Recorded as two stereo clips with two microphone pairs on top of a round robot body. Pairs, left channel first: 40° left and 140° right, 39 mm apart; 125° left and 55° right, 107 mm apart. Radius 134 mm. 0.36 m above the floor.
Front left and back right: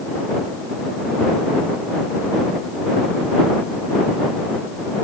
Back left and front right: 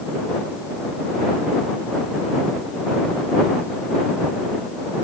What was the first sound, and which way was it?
Only background noise.